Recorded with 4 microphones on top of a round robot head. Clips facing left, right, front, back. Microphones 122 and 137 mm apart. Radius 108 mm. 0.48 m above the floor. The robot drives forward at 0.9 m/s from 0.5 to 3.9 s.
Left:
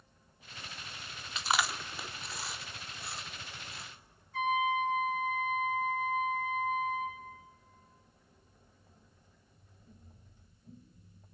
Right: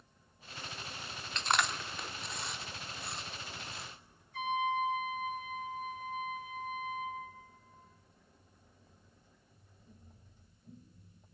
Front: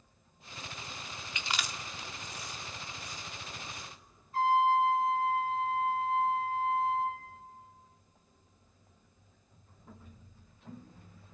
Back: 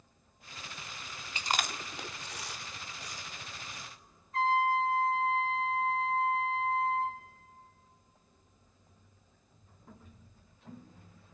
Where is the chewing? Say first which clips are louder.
Even, back 5 dB; 170° left, 0.7 m; by 3.9 s straight behind, 2.5 m.